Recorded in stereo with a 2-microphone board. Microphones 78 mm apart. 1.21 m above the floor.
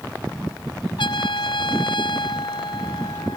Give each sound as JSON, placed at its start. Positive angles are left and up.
{"t": 1.0, "sound": "a trumpet", "side_deg": 80}